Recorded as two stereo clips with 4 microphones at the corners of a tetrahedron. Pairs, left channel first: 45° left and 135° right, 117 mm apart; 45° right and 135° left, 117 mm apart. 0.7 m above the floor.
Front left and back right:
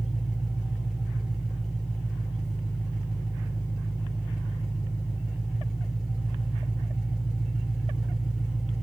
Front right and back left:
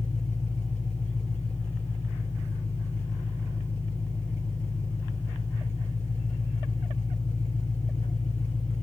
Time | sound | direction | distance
0.0 | an engine running | 50° right | 2 m